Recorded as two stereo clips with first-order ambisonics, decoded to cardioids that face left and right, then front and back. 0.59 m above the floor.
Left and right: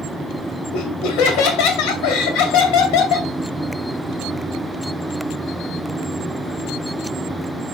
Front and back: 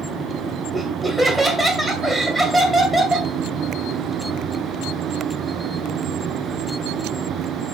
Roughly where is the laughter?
Left.